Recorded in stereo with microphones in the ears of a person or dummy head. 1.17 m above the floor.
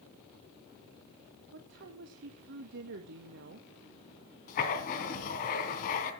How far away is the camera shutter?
I don't hear a camera shutter.